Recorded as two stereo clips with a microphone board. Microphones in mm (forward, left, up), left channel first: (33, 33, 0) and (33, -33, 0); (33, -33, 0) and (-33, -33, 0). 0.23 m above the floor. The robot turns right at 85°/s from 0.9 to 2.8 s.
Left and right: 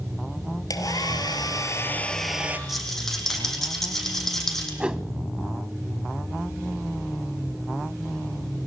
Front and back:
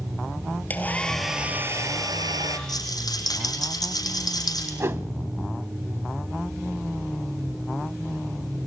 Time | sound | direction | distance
0.7 | a hair dryer | 65° left | 2.5 m
2.7 | a rattle | 5° right | 6 m
4.8 | a whoosh | 160° right | 0.6 m